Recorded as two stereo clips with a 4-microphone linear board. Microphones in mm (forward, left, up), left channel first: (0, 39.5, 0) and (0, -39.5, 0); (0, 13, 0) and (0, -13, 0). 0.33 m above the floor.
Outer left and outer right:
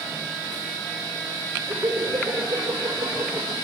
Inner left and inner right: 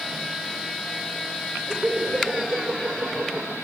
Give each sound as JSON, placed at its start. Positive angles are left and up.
{"t": 1.7, "sound": "laughter", "side_deg": -40, "distance_m": 8.5}